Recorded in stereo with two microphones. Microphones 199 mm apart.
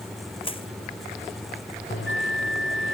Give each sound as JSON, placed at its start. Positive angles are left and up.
{"t": 0.4, "sound": "crushing", "side_deg": 25}
{"t": 1.9, "sound": "a bell", "side_deg": 70}